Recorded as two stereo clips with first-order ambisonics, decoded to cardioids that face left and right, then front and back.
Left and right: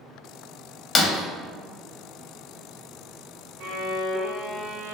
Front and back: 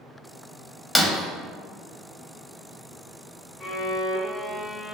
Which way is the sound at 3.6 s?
90° right.